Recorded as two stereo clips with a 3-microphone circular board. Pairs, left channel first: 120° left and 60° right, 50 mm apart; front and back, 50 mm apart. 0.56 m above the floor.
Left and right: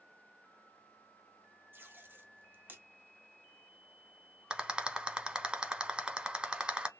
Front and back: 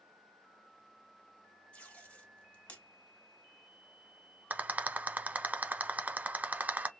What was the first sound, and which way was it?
Tape being pulled, 45° right.